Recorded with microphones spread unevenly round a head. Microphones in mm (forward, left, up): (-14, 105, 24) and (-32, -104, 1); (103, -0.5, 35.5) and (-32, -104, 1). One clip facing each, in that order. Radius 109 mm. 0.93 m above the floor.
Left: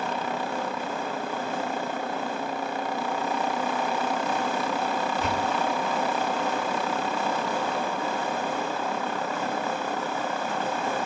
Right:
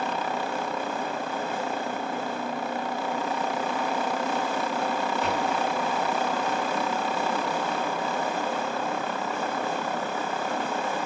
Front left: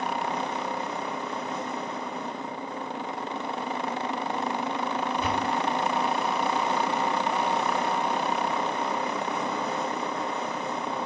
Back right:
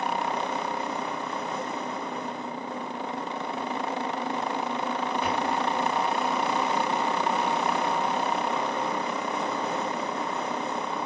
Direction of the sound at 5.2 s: 60° left.